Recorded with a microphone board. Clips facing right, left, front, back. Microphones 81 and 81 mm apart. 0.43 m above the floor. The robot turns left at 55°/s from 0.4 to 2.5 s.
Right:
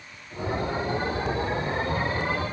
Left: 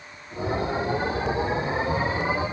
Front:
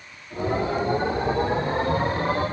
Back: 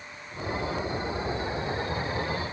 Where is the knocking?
No knocking in this recording.